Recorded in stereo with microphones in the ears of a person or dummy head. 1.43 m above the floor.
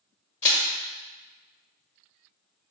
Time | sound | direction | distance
0.4 | crushing | 20° left (ahead or behind) | 0.9 m